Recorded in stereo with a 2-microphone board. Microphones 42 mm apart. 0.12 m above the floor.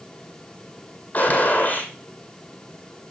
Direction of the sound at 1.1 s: 40° left (ahead or behind).